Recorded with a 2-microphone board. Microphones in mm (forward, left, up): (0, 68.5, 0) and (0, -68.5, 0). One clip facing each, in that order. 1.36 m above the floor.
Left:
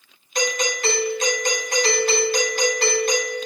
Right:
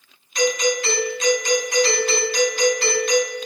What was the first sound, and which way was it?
A doorbell, 60° left (ahead or behind).